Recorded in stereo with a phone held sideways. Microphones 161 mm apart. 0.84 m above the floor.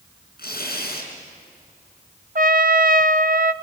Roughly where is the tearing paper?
Left.